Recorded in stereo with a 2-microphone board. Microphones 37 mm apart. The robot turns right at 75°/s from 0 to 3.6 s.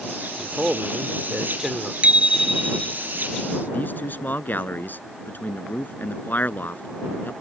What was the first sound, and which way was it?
A man speaking, 140° right.